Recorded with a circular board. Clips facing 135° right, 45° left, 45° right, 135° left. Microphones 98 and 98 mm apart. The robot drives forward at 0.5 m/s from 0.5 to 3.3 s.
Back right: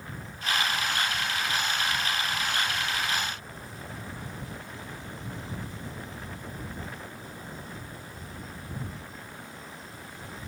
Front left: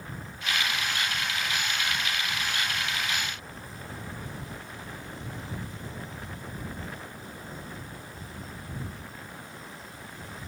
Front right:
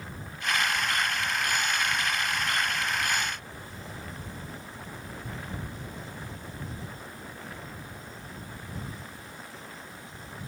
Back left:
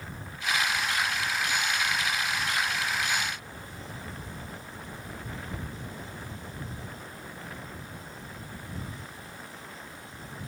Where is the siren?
No siren in this recording.